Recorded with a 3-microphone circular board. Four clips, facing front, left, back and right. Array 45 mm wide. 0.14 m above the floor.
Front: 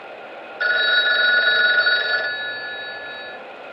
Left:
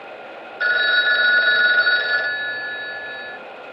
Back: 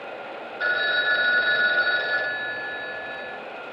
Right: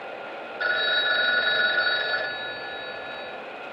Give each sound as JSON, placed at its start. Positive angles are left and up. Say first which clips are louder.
{"t": 0.6, "sound": "a phone ringing", "louder": "left 7 dB, front 5 dB", "azimuth_deg": 35, "distance_m": 0.9}